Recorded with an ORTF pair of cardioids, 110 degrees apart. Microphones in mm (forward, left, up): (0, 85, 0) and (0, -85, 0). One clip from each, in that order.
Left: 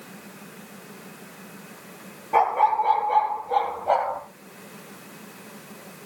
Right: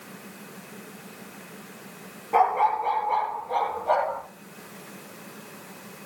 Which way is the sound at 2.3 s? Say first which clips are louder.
Left 2 dB; straight ahead.